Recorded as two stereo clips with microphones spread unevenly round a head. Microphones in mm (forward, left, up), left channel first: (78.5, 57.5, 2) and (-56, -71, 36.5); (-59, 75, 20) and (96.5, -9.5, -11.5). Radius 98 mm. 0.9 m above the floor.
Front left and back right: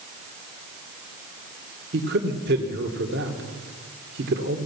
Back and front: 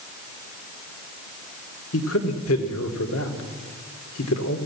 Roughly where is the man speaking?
Behind.